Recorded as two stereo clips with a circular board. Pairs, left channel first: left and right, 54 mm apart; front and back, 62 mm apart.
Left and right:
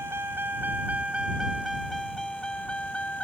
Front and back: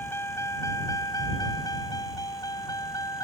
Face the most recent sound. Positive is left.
turn(degrees=25)